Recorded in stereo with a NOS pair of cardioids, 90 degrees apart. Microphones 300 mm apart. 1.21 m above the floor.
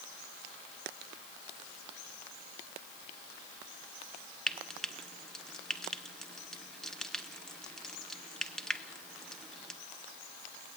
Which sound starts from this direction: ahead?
Frying, at 4.5 s.